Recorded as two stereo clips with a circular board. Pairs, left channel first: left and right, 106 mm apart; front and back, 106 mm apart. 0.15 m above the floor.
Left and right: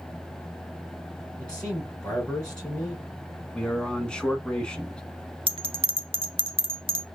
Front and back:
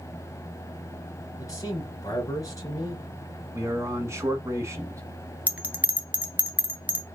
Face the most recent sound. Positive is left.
turn(degrees=-105)